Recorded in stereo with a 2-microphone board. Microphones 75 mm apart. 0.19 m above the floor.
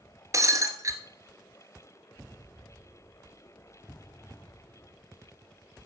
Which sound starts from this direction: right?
Breaking glass, at 0.3 s.